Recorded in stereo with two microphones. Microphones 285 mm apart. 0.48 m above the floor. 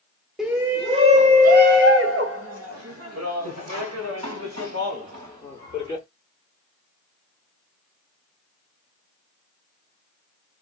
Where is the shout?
Centre (ahead or behind), 1.0 m; by 6.0 s 75° right (ahead or behind), 3 m.